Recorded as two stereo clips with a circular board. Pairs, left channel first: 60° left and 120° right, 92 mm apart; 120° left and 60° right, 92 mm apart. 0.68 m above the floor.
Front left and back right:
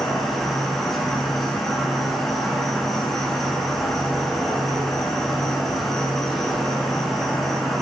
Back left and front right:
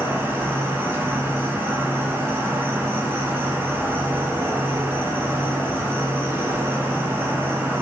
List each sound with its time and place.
0.0 s an insect: 25° right, 2 m